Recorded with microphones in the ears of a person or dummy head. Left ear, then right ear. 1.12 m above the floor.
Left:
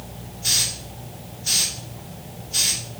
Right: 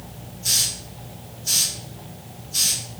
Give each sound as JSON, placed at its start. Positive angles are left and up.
{"t": 0.4, "sound": "a hiss", "side_deg": 45, "distance_m": 3.0}